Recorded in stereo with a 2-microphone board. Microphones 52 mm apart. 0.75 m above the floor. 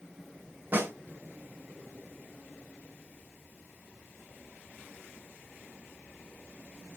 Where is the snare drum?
35° right (ahead or behind), 2.5 m.